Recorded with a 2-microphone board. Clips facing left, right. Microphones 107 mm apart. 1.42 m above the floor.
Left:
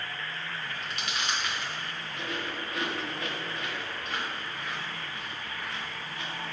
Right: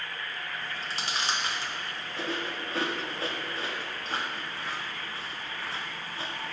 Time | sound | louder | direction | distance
0.6 | chewing | right 1 dB | 30° right (ahead or behind) | 1.1 m